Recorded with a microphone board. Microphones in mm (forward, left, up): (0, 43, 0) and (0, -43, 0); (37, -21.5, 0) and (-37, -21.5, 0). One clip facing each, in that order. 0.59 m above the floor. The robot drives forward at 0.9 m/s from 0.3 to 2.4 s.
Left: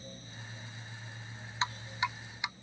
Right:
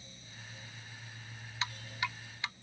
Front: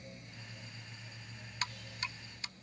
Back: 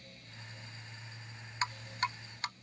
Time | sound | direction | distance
1.6 | dripping | 130° left | ?